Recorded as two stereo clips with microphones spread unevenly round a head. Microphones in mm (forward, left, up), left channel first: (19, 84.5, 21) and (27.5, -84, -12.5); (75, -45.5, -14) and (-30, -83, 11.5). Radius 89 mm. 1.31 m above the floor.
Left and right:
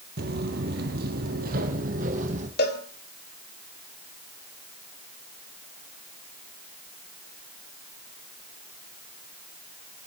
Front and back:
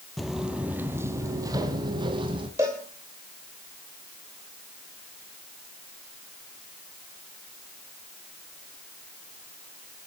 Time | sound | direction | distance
0.2 | footsteps | 85° right | 1.7 m
2.6 | a cowbell | 125° left | 3 m